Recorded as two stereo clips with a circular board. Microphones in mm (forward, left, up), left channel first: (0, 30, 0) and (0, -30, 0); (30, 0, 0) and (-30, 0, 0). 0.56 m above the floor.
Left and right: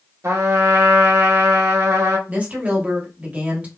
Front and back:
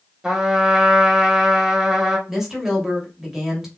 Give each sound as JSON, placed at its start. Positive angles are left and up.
{"t": 0.2, "sound": "a trumpet", "azimuth_deg": -105, "distance_m": 0.7}
{"t": 2.3, "sound": "a woman speaking", "azimuth_deg": -105, "distance_m": 1.0}